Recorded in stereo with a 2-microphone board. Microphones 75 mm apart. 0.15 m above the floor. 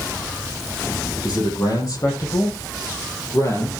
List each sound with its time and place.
1.2 s a man speaking: 60° left (ahead or behind), 5.5 m; by 3.7 s 40° left (ahead or behind), 5 m